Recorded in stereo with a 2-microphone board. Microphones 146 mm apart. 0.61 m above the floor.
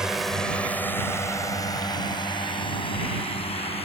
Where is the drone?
5° right (ahead or behind); by 3.9 s 45° left (ahead or behind).